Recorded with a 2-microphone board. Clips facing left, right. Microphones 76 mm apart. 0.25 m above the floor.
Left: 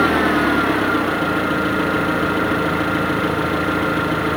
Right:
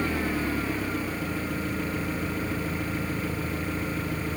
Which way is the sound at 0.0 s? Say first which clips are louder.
Left 12 dB; 70° left (ahead or behind).